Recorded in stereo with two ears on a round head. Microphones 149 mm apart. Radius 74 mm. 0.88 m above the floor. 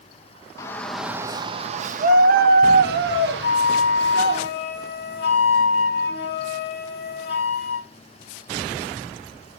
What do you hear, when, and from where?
0.6 s a shout: 20° left (ahead or behind), 0.7 m; by 4.4 s 75° right (ahead or behind), 2 m
3.4 s a flute: 70° left (ahead or behind), 1.6 m